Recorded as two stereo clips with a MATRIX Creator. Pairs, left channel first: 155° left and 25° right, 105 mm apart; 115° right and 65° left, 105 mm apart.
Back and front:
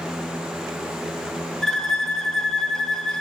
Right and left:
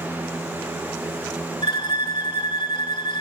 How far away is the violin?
About 1.4 m.